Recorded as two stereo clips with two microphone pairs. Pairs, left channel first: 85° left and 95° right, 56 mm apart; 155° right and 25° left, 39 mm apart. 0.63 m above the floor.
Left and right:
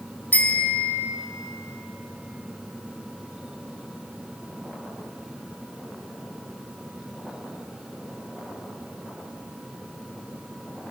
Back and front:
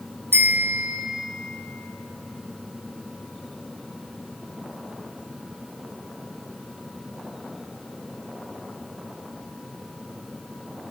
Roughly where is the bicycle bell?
Ahead left.